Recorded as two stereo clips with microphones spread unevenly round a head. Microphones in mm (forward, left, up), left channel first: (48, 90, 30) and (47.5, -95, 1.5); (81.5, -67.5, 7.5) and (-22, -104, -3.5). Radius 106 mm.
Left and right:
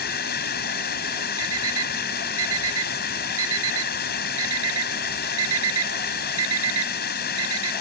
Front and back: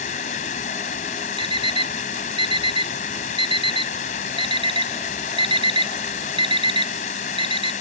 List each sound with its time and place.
0.0 s running water: 60° left
1.4 s an alarm clock: 120° right